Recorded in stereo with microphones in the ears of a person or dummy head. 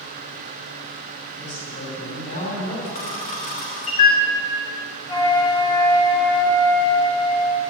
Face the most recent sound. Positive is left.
turn(degrees=25)  # may be behind; listen again after turning